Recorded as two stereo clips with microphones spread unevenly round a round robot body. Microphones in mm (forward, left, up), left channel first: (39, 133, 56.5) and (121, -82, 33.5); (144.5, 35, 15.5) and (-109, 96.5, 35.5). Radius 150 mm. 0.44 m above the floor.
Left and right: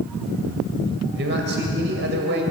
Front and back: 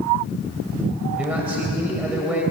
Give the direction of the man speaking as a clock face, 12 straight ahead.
4 o'clock.